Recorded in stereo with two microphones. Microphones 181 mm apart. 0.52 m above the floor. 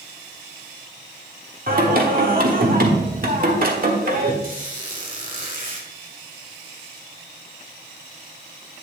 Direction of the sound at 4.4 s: 50° right (ahead or behind).